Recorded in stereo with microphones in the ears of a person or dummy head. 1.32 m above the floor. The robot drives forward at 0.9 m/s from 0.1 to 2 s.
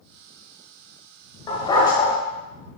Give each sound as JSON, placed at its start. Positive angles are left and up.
{"t": 1.5, "sound": "a dog barking", "side_deg": 20, "distance_m": 1.9}